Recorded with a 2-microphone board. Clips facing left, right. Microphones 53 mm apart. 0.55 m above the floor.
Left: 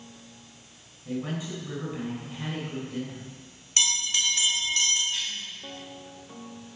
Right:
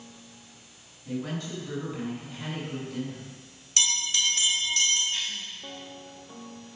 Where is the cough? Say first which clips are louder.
Even; 5° right (ahead or behind), 1.0 m.